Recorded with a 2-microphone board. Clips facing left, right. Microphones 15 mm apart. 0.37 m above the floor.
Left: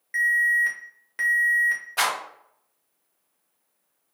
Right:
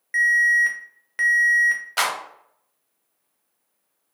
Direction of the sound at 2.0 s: 60° right (ahead or behind).